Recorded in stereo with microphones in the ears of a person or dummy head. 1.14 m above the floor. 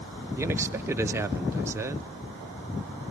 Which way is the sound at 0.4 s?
15° right (ahead or behind).